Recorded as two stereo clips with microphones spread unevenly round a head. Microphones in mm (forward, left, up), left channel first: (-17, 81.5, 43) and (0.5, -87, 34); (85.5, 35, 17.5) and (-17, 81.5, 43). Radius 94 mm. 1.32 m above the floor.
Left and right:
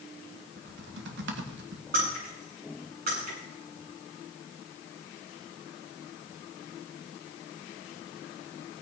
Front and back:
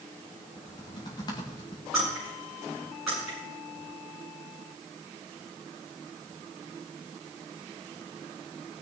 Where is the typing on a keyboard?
85° right, 1.9 m.